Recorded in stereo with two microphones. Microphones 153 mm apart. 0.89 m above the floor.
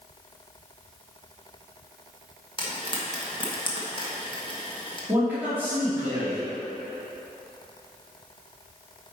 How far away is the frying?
About 1.3 m.